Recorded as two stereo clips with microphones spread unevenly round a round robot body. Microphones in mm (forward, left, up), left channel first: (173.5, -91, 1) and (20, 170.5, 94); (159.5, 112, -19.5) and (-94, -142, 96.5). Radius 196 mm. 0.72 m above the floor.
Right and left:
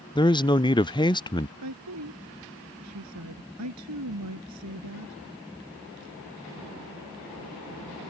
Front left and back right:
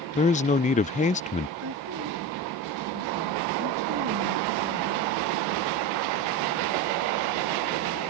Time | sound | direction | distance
0.1 | a man speaking | 5° right | ?
1.6 | a woman speaking | 170° left | ?